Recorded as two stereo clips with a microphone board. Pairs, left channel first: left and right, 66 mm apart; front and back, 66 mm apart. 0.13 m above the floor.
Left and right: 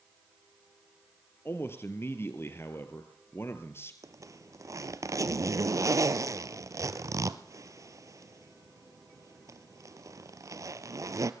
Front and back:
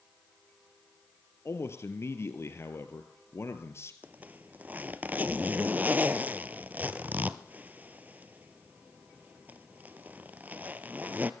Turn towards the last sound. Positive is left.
turn(degrees=-115)